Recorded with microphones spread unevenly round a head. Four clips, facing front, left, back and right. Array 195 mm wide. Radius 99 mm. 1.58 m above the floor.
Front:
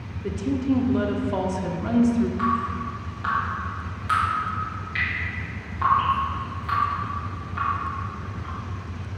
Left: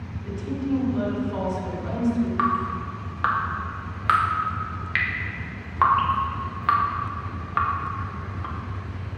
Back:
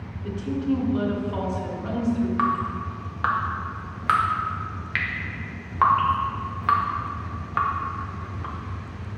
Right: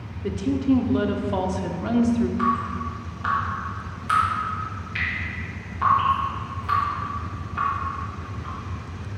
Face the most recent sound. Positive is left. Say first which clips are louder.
# even, even
turn(degrees=135)